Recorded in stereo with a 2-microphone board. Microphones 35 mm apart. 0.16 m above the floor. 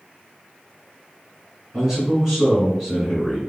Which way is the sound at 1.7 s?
10° right (ahead or behind).